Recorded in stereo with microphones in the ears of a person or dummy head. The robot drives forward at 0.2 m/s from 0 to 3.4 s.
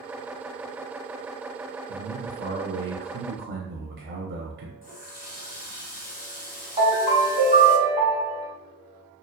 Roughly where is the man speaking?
Right.